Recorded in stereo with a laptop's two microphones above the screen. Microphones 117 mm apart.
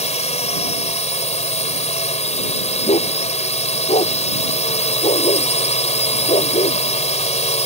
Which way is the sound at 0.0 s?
80° left.